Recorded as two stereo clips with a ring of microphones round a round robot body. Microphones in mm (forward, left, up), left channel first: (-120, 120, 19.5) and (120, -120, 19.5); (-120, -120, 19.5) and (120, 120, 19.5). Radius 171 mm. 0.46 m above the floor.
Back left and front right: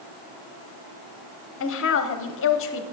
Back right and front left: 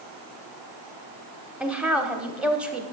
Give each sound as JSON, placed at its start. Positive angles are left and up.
{"t": 1.6, "sound": "a woman speaking", "azimuth_deg": 130, "distance_m": 0.8}